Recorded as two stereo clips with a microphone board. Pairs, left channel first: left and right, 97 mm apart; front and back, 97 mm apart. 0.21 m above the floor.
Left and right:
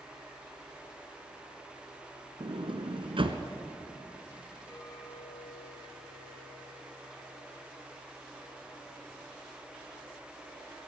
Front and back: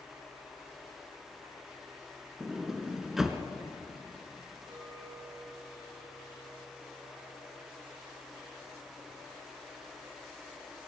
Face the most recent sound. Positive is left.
turn(degrees=170)